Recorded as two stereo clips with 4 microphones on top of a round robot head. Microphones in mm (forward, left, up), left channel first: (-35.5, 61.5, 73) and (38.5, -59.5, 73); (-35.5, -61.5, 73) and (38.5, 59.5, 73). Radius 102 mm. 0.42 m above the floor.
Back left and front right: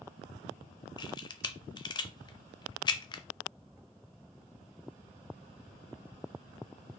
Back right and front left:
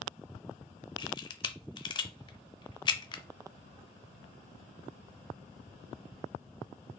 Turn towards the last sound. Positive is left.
turn(degrees=180)